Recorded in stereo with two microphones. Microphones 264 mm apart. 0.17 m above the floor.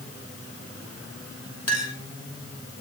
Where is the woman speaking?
I don't hear a woman speaking.